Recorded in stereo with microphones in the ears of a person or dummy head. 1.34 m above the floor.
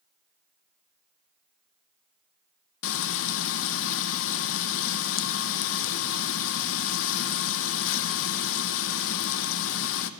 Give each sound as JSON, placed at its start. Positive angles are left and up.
{"t": 2.8, "sound": "frying", "side_deg": 70, "distance_m": 0.6}